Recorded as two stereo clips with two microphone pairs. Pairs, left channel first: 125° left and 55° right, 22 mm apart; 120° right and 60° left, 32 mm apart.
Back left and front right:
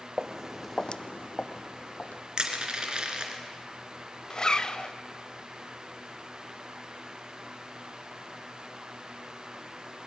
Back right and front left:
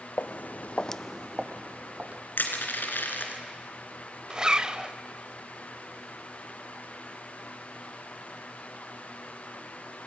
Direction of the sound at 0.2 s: 120° right.